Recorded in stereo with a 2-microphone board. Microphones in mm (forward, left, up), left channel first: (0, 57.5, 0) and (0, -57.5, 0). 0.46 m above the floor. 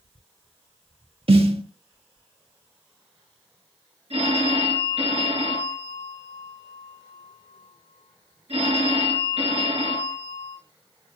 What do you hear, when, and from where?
1.3 s a snare drum: 55° right (ahead or behind), 1.0 m
4.1 s a phone ringing: 60° right (ahead or behind), 4 m